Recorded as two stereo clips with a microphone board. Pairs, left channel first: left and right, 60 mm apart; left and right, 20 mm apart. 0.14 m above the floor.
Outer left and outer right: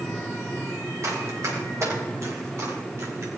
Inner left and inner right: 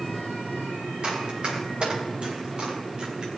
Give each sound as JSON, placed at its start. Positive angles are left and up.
{"t": 1.0, "sound": "running footsteps", "side_deg": -55, "distance_m": 6.5}